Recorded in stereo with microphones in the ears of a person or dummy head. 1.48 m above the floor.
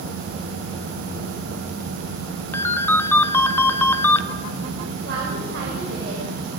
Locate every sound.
2.5 s a ringtone: 15° left (ahead or behind), 1.3 m
5.0 s a woman speaking: 65° right (ahead or behind), 6.5 m